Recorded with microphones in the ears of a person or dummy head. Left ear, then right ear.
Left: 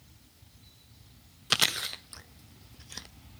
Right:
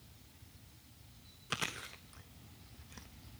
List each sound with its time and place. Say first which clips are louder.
1.5 s chewing: left 13 dB; 35° left (ahead or behind), 0.6 m